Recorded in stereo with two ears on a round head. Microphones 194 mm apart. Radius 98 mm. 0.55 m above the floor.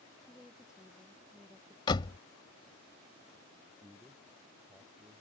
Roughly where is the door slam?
Left.